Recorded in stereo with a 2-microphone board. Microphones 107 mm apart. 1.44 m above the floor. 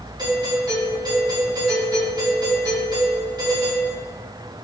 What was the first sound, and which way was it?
A doorbell, 40° right (ahead or behind).